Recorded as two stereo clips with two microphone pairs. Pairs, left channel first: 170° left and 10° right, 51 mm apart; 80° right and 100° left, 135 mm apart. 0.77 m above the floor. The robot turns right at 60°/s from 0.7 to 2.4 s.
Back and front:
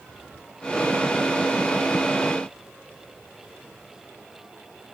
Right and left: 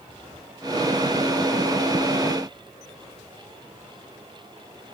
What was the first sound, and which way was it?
Only background noise.